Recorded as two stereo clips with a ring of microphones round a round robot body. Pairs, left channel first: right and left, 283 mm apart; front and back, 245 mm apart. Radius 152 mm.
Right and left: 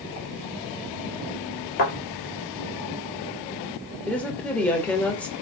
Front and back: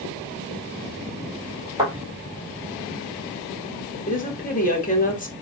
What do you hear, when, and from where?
1.8 s a thud: 100° right, 1.9 m
4.1 s a woman speaking: 10° right, 1.2 m